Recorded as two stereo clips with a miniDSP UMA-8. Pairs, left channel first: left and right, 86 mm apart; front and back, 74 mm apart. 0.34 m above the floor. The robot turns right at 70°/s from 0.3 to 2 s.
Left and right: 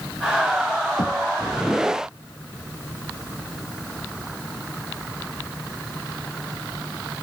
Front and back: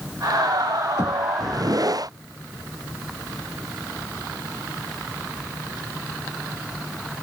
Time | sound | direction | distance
1.0 | knocking | 55° left | ?